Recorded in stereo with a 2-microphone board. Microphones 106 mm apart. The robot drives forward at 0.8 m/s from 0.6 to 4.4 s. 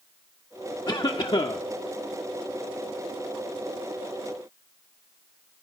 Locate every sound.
0.9 s a cough: 40° left (ahead or behind), 1.0 m; by 1.6 s 50° left (ahead or behind), 0.8 m